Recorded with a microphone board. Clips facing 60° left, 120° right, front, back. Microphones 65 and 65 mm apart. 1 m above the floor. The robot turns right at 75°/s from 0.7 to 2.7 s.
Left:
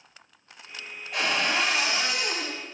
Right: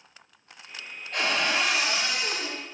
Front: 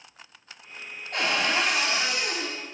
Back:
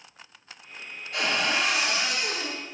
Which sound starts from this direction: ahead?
A cupboard door, at 1.1 s.